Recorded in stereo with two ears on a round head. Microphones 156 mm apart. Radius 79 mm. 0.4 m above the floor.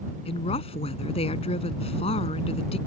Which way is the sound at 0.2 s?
35° left (ahead or behind).